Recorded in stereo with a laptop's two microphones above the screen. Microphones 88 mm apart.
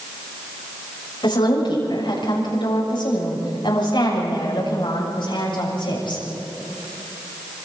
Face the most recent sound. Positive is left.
turn(degrees=65)  # may be behind; listen again after turning